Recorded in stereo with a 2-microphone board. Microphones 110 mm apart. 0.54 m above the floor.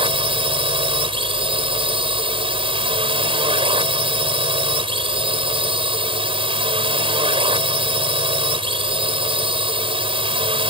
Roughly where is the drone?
Right.